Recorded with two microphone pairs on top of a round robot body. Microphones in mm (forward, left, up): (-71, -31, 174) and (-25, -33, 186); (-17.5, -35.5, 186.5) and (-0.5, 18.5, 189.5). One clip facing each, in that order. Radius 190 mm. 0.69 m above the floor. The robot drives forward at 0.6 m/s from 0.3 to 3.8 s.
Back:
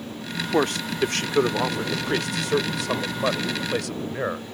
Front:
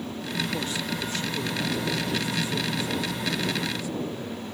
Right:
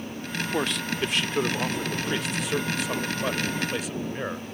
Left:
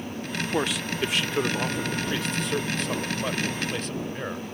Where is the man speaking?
160° left; by 4.5 s 170° left.